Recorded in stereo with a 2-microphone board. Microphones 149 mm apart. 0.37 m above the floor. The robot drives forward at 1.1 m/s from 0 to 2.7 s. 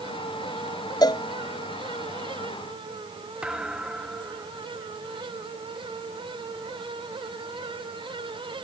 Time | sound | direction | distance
1.0 | a cowbell | 25° left (ahead or behind) | ?
3.4 | a thud | 5° right (ahead or behind) | ?